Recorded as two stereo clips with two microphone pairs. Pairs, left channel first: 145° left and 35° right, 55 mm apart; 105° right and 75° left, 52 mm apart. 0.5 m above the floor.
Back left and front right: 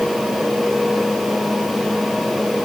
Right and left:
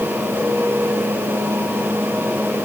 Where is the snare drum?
No snare drum in this recording.